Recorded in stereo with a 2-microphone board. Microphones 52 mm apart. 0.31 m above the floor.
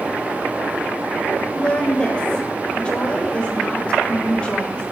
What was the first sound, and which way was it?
A woman speaking, 20° left (ahead or behind).